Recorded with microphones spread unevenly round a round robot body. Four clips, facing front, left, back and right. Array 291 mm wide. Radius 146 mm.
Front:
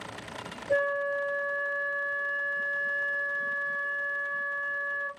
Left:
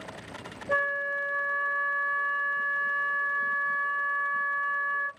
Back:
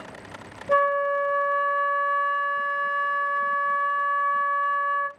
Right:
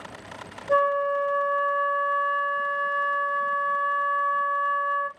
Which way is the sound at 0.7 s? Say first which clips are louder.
Right 8 dB, back 6 dB; 175° right.